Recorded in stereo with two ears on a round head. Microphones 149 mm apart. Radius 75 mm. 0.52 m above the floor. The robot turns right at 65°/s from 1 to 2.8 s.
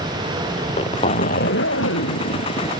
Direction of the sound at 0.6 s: 35° left.